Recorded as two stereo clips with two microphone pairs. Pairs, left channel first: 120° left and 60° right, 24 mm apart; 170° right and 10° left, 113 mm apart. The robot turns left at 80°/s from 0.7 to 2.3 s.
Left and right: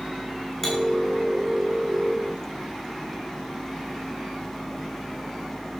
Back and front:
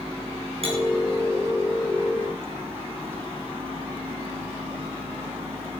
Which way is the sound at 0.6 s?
45° left.